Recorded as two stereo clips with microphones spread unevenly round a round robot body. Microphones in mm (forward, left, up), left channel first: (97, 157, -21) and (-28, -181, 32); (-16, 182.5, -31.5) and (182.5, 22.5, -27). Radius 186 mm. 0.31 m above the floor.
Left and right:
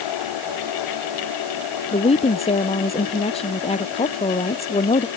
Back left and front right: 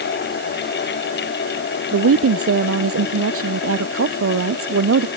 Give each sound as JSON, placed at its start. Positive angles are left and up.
{"t": 1.9, "sound": "a woman speaking", "azimuth_deg": -5}